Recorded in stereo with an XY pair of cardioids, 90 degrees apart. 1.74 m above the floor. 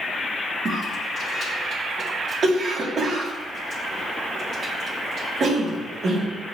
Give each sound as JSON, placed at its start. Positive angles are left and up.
{"t": 0.7, "sound": "a cough", "azimuth_deg": -55, "distance_m": 3.5}